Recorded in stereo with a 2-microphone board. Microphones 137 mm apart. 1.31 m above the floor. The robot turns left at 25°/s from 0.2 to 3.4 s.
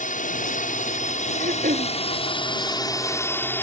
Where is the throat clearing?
80° right; by 1.9 s 85° right.